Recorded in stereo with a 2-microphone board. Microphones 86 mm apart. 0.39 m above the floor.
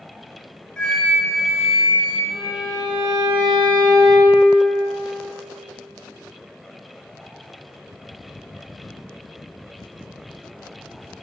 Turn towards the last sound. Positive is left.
turn(degrees=-55)  # may be behind; listen again after turning